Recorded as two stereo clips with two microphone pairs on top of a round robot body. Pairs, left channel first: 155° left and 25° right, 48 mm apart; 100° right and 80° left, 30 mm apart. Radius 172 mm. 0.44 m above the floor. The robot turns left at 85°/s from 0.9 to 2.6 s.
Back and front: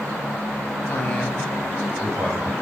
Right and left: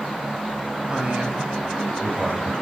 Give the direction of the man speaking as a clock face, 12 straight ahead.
8 o'clock.